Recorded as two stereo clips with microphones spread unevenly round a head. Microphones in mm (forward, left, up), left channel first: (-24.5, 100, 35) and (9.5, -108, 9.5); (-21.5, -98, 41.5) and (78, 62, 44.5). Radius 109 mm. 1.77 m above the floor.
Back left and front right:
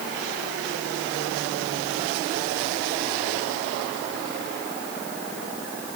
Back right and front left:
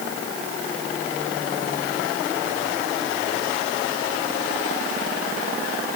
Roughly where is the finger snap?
No finger snap in this recording.